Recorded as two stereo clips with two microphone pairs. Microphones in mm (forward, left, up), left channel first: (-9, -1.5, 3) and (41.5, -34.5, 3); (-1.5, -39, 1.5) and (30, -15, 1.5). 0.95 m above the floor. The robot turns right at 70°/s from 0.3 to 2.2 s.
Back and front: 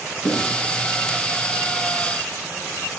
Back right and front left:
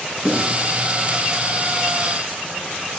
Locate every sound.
0.2 s writing: 135° left, 4.5 m; by 0.4 s 145° left, 4.5 m